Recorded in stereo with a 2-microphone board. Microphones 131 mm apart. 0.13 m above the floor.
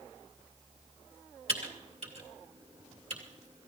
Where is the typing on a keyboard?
50° right (ahead or behind), 2.5 m.